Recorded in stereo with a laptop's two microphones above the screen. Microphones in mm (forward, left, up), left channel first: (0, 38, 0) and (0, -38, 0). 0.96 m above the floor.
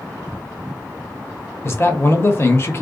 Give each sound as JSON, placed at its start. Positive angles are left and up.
{"t": 1.6, "sound": "a man speaking", "side_deg": 35, "distance_m": 0.8}